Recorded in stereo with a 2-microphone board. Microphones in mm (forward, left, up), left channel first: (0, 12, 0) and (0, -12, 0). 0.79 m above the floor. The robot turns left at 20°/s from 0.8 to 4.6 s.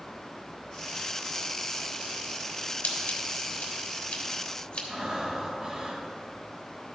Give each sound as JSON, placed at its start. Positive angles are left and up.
{"t": 2.8, "sound": "scissors", "side_deg": 80, "distance_m": 1.5}
{"t": 4.9, "sound": "breathing", "side_deg": -40, "distance_m": 1.3}